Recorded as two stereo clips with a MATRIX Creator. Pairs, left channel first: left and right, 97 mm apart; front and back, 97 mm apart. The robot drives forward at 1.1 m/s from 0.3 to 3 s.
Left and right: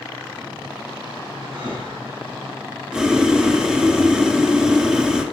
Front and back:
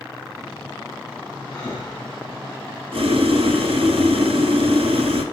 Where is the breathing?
60° right, 3.5 m; by 2.8 s 80° right, 3 m.